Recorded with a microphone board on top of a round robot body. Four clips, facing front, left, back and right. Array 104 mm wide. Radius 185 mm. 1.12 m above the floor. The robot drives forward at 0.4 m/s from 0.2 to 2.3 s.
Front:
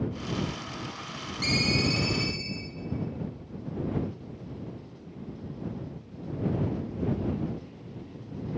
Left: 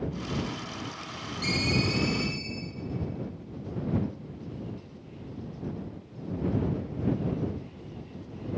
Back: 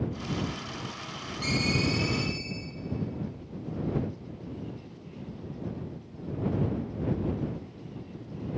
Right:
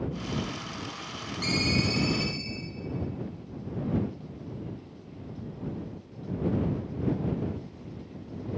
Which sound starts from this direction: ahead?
A ringtone, at 1.4 s.